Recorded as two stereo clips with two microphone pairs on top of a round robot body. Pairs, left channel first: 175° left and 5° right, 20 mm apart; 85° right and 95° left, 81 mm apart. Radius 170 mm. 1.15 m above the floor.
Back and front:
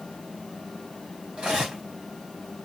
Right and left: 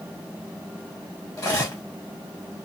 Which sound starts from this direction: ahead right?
Cutlery clinking, at 1.4 s.